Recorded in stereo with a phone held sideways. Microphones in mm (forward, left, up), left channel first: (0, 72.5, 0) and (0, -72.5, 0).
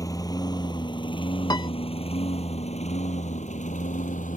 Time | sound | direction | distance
0.0 | a lawn mower | 25° left (ahead or behind) | ?
1.5 | a piano | 30° left (ahead or behind) | ?